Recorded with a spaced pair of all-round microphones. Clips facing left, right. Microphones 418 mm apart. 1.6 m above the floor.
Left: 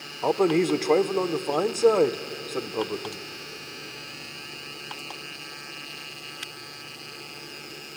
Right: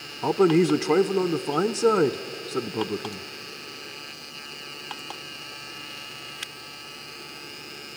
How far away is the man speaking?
About 0.6 m.